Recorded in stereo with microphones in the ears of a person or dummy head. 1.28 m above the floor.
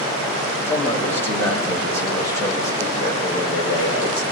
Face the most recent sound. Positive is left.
turn(degrees=30)  # may be behind; listen again after turning